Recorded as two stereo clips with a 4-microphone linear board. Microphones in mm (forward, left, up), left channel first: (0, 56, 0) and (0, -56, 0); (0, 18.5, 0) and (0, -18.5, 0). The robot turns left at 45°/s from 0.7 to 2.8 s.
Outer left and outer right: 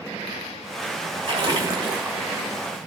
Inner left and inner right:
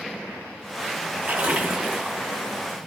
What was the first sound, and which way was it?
A splash, 125° right.